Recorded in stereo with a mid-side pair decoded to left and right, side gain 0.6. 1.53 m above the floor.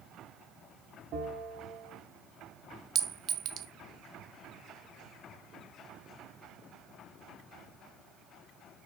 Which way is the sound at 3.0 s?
40° right.